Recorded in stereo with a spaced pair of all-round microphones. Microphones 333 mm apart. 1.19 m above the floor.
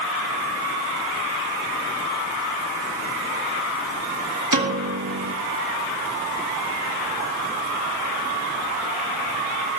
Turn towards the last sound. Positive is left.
turn(degrees=-65)  # may be behind; listen again after turning